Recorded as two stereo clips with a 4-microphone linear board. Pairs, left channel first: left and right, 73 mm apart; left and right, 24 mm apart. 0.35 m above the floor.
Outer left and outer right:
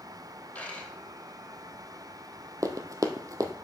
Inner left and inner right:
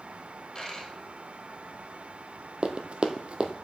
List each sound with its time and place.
0.6 s a dropped coin: 20° left (ahead or behind), 2.5 m
2.6 s running footsteps: 55° right (ahead or behind), 0.8 m